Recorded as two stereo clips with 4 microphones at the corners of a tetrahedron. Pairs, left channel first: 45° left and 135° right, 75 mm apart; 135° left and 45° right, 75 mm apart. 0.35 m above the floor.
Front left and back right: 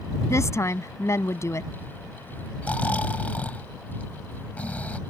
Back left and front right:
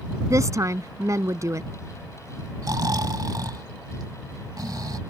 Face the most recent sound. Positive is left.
turn(degrees=-25)